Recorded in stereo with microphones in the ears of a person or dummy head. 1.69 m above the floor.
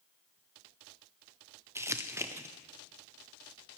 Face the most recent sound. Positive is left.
turn(degrees=-15)  # may be behind; listen again after turning